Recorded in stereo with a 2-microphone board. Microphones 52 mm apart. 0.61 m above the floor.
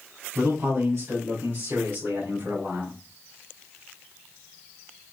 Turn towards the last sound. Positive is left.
turn(degrees=-45)  # may be behind; listen again after turning